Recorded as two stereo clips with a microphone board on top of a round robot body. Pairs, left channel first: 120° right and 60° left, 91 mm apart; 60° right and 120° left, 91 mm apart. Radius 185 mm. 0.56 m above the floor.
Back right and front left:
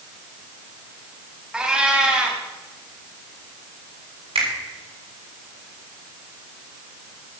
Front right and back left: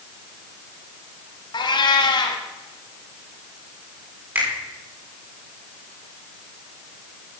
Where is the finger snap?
50° left, 7 m.